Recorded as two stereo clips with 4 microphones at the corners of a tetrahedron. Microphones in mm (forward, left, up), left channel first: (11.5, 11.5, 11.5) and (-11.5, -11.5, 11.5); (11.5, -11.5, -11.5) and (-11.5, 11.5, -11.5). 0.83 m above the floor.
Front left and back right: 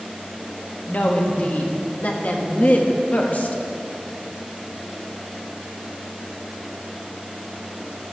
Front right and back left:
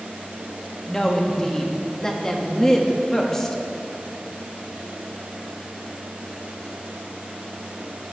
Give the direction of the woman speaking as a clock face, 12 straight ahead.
11 o'clock.